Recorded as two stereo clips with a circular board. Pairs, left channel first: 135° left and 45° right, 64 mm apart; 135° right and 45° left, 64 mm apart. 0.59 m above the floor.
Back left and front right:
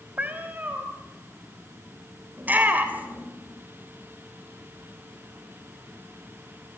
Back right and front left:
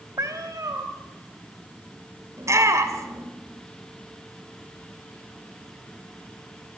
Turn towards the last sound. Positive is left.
turn(degrees=15)